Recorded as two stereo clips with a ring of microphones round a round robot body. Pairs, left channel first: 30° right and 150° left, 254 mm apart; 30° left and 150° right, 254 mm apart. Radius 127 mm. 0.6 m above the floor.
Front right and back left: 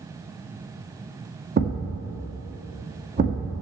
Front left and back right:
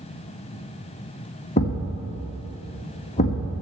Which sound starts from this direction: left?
A thud, at 1.6 s.